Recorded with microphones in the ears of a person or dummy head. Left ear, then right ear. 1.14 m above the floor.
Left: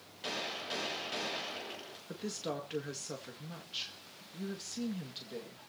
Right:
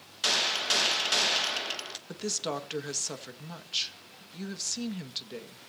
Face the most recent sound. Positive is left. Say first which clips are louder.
# right 6 dB
turn(degrees=-25)  # may be behind; listen again after turning